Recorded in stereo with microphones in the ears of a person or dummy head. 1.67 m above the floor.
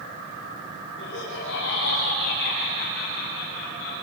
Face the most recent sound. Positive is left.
turn(degrees=90)